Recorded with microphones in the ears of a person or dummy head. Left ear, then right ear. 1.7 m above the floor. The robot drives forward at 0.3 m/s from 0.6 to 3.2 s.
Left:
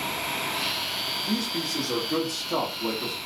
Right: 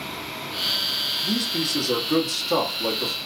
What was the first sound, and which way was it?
A man speaking, 65° right (ahead or behind).